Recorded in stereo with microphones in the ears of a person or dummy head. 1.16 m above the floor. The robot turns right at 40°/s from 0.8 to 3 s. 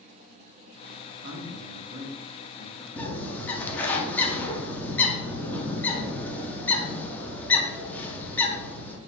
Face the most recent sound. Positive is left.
turn(degrees=10)  # may be behind; listen again after turning